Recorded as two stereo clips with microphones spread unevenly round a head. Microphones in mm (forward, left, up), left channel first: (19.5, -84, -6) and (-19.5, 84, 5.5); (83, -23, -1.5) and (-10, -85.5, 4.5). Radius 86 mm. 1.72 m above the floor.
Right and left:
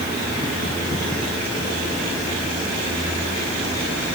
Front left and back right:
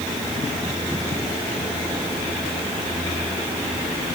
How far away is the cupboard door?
I don't hear a cupboard door.